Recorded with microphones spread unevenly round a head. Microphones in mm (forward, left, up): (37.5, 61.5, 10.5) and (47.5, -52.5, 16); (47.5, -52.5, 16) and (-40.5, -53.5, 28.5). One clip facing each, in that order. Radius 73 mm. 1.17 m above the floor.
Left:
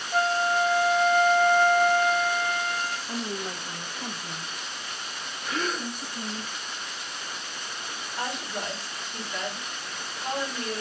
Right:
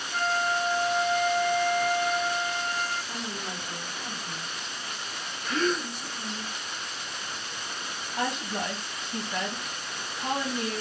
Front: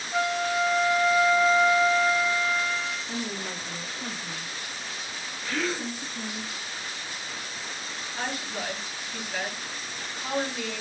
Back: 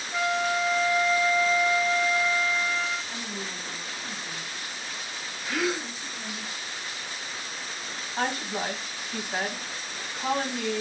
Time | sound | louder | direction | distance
0.1 | a flute | left 4 dB, even | 90° left | 1.4 m
3.1 | a woman speaking | left 3 dB, front 3 dB | 45° left | 1.2 m
5.4 | a gasp | right 3 dB, back 1 dB | 175° right | 0.5 m
8.2 | a woman speaking | right 3 dB, back 4 dB | 130° right | 1.9 m